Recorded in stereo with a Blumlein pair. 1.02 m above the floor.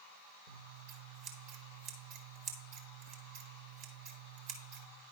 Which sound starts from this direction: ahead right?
Scissors, at 0.5 s.